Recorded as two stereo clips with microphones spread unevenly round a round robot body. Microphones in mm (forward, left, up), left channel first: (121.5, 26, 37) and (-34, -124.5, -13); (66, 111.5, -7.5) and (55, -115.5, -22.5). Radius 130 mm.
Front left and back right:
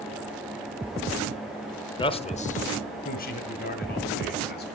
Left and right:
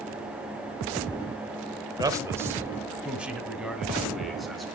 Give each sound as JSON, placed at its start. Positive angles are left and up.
{"t": 2.0, "sound": "a man speaking", "azimuth_deg": -30, "distance_m": 1.1}